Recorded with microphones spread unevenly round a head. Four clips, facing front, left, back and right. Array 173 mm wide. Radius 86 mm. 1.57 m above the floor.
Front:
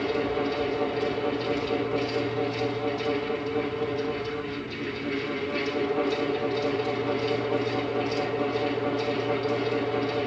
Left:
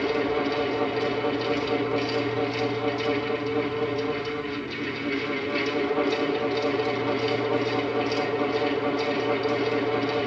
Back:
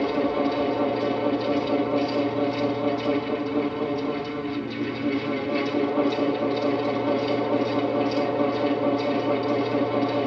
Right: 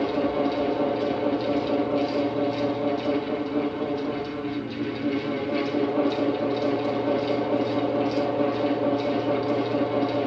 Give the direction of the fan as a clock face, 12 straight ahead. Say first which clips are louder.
Right 1 dB, back 4 dB; 5 o'clock.